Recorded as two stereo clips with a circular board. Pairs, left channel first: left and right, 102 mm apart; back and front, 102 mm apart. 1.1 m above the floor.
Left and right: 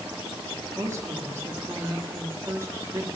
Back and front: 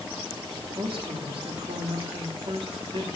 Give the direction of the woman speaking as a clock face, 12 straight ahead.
1 o'clock.